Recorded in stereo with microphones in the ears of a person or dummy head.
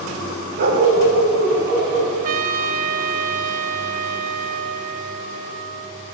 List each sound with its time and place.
0.6 s a dog barking: 60° right (ahead or behind), 3 m; by 2.1 s 50° right (ahead or behind), 5 m
2.2 s a trumpet: 50° right (ahead or behind), 0.8 m